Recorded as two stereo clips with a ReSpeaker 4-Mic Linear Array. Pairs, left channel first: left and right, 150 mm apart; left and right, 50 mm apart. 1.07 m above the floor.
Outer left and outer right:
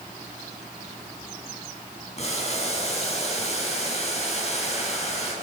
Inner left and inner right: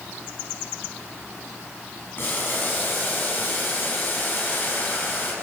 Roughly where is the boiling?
Left.